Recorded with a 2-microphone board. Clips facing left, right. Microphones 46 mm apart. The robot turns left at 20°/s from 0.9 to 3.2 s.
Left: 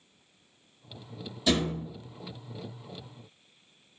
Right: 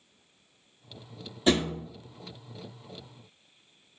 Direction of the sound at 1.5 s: 30° right (ahead or behind).